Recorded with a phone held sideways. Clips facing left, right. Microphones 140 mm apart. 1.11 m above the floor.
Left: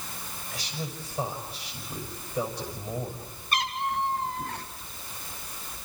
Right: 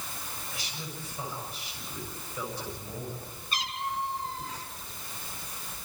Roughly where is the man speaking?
Left.